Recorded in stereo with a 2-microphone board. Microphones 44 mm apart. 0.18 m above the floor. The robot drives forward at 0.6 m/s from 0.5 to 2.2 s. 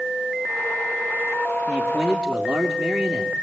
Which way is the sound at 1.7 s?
10° left (ahead or behind).